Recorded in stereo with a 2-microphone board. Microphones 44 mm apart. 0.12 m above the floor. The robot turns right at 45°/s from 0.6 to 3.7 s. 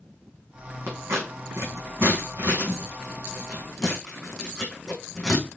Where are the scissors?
60° right (ahead or behind), 5 m; by 5.5 s 10° left (ahead or behind), 5 m.